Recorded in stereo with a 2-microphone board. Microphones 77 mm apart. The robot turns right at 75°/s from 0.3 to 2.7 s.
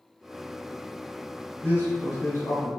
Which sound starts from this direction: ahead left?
A man speaking, at 1.6 s.